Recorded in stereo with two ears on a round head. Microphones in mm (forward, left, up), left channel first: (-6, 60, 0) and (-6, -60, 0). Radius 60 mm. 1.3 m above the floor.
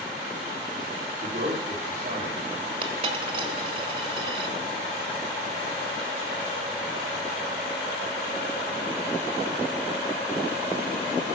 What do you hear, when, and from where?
1.2 s a man speaking: 60° right (ahead or behind), 3.5 m; by 2.7 s 50° right (ahead or behind), 2.5 m
2.8 s a dropped coin: 40° right (ahead or behind), 1.5 m